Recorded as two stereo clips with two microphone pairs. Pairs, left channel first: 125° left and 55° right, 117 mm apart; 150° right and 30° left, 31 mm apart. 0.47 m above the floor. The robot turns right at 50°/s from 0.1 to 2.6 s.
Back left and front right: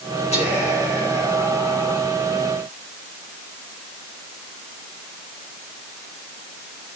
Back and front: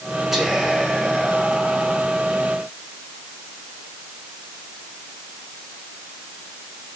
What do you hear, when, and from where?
0.3 s whispering: 110° left, 4.5 m; by 2.1 s 160° right, 4.5 m